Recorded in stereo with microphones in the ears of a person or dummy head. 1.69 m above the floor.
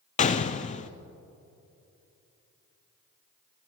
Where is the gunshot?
35° left (ahead or behind), 0.5 m.